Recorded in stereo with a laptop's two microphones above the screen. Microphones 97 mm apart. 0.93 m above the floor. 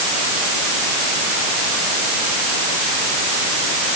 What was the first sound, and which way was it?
Only background noise.